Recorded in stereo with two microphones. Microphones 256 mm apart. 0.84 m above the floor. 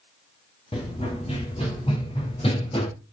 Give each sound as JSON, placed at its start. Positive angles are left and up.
{"t": 0.7, "sound": "running footsteps", "side_deg": 20, "distance_m": 3.0}